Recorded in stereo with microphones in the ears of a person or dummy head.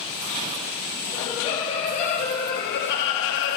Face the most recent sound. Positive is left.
turn(degrees=75)  # may be behind; listen again after turning